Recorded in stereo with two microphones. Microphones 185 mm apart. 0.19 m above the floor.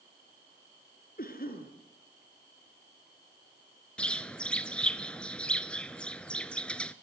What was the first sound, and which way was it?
A cough, 50° left (ahead or behind).